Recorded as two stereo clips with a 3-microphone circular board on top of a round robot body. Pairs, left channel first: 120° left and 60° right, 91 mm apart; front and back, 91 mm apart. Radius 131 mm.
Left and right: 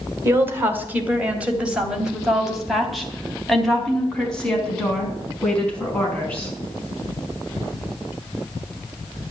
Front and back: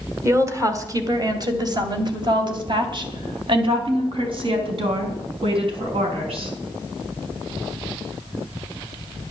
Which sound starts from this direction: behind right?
A woman speaking, at 0.2 s.